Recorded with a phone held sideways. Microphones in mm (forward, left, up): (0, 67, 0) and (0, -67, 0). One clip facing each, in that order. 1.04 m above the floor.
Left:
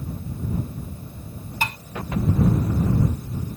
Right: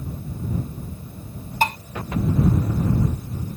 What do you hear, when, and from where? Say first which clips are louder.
1.6 s dishes clattering: right 7 dB; 40° right (ahead or behind)